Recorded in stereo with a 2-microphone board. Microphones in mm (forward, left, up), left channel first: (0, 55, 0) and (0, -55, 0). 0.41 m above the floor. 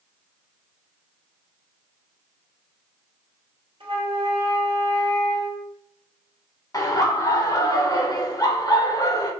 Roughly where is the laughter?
Left.